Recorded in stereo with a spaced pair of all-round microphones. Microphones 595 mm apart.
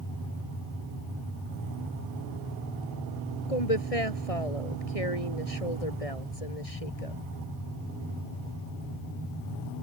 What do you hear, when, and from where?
3.5 s a woman speaking: 70° left (ahead or behind)